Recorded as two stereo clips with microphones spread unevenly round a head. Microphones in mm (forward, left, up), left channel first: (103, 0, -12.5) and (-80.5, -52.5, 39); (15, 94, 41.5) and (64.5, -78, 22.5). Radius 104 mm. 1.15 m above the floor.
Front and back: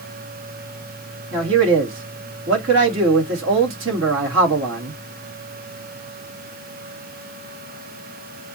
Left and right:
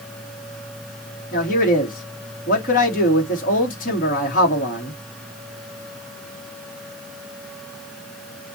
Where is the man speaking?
160° left, 2.5 m.